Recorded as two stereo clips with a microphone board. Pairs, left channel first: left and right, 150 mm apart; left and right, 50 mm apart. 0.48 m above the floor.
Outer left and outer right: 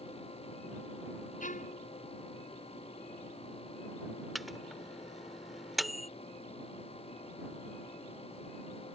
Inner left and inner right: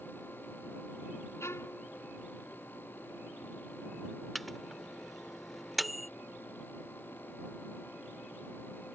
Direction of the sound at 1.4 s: 60° left (ahead or behind).